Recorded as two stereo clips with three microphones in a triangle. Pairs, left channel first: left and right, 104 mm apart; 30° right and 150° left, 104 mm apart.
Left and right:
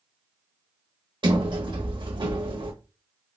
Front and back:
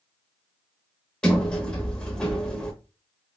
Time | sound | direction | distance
1.2 | a sliding door | 110° right | 0.9 m